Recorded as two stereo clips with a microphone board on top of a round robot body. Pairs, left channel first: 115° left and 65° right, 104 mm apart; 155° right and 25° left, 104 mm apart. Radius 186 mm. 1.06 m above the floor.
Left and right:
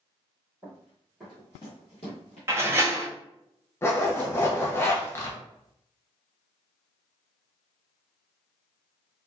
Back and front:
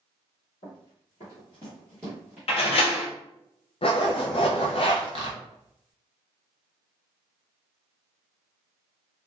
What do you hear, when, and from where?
0.6 s running footsteps: 135° right, 1.5 m; by 2.4 s 105° left, 1.4 m
2.5 s a door slam: 135° right, 0.6 m
3.8 s a zipper: 175° left, 0.8 m